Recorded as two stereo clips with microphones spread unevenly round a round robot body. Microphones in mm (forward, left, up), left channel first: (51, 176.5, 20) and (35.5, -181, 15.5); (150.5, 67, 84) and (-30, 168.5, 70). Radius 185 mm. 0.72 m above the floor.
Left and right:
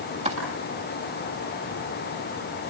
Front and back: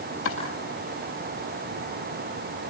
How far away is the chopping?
About 8.5 m.